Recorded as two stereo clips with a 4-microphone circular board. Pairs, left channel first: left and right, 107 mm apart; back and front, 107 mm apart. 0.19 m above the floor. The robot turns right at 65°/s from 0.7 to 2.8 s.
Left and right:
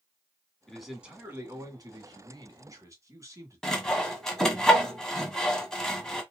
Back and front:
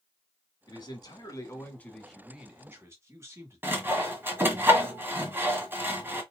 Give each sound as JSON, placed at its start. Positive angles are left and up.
{"t": 0.7, "sound": "a man speaking", "azimuth_deg": 175, "distance_m": 1.6}
{"t": 3.6, "sound": "sawing", "azimuth_deg": 15, "distance_m": 1.2}